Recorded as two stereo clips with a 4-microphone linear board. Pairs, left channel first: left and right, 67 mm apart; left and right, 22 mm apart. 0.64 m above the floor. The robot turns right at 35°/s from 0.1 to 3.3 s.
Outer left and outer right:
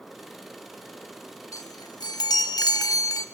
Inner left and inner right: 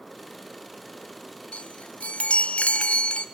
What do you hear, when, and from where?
1.5 s a chime: 60° left, 0.8 m; by 3.2 s 120° left, 0.8 m